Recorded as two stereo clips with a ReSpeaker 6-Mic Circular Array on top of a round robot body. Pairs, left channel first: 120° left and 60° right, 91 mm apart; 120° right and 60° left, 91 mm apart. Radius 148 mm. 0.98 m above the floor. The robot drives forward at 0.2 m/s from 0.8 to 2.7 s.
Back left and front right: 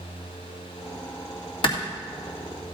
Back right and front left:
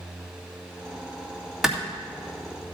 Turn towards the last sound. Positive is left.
turn(degrees=150)